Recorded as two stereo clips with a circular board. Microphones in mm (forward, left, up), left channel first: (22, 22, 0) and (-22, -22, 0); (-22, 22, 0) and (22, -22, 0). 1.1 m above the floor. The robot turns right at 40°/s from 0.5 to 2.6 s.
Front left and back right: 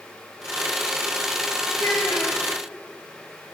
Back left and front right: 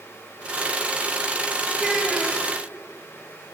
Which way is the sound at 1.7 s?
40° left.